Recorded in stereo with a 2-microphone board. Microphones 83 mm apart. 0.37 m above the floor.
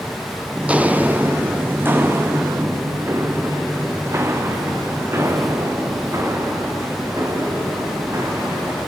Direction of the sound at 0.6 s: 15° right (ahead or behind).